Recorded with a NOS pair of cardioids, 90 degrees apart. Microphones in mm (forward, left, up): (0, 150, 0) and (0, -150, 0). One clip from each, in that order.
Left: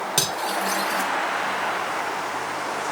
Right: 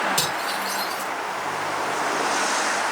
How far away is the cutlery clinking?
About 8.5 m.